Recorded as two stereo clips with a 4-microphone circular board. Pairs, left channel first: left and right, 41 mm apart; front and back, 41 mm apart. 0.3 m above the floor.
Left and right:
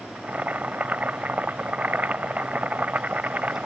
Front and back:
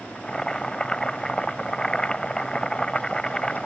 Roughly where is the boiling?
Ahead right.